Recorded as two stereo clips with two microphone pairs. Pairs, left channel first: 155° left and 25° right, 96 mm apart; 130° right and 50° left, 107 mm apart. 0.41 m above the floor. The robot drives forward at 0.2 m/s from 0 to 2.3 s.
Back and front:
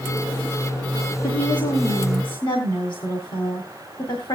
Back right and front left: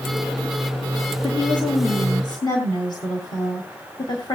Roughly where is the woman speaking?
Behind.